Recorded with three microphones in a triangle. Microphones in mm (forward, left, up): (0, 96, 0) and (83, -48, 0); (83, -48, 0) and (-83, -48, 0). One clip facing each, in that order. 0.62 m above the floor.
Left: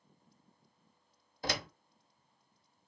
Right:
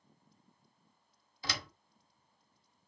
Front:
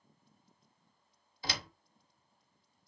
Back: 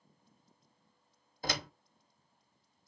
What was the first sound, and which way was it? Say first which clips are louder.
A door slam: left 6 dB, back 4 dB; 150° left.